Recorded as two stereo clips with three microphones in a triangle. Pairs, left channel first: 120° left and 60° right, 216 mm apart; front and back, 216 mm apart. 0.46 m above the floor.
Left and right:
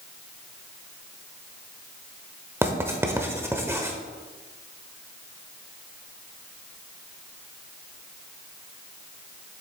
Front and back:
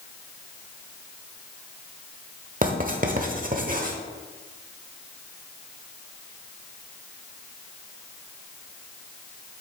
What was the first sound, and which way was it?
Writing, 140° right.